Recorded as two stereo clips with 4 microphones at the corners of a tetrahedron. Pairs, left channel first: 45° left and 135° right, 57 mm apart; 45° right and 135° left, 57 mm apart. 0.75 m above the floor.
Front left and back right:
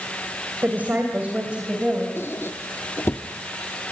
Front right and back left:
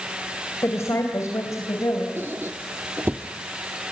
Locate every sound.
0.6 s a woman speaking: 80° right, 3 m; by 2.1 s 60° right, 4.5 m
2.2 s a squeak: 90° left, 0.8 m